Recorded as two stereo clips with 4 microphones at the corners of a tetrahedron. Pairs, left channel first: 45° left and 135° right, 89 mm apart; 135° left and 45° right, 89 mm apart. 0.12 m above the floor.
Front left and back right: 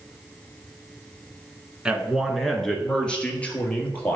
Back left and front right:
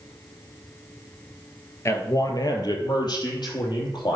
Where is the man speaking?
150° left, 1.3 m; by 4.2 s 115° left, 3 m.